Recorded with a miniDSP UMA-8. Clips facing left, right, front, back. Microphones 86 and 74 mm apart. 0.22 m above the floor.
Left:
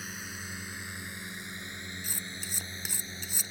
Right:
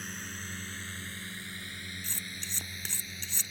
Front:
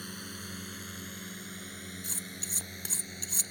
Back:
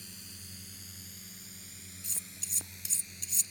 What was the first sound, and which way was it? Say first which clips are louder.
A drone: even, front 11 dB; 5° left.